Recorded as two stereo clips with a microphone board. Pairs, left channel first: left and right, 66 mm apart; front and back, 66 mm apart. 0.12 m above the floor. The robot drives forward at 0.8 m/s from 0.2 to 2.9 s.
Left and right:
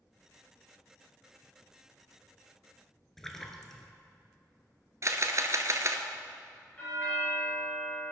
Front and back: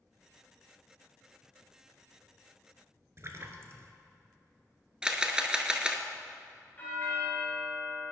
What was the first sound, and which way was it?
A splash, 170° left.